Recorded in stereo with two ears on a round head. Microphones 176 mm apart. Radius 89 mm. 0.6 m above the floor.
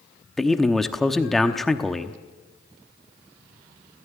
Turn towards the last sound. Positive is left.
turn(degrees=0)  # may be behind; listen again after turning